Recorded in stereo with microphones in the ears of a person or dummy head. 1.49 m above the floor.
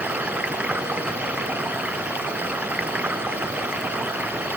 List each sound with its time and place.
0.0 s running water: 10° right (ahead or behind)